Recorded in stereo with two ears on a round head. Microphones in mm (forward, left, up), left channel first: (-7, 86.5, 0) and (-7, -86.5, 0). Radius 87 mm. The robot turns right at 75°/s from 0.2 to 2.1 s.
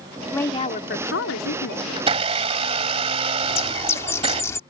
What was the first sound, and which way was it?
A woman speaking, 10° left.